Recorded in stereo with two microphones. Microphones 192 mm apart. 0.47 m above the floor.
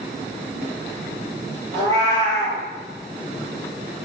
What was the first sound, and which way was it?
A cat meowing, 15° left (ahead or behind).